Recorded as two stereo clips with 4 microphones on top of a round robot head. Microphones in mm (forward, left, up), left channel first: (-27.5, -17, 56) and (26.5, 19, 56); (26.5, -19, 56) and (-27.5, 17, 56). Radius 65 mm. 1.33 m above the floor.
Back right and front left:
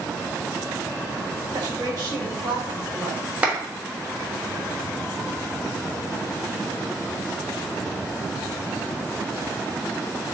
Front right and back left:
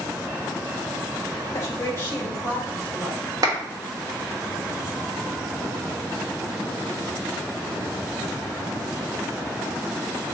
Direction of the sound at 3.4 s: 105° left.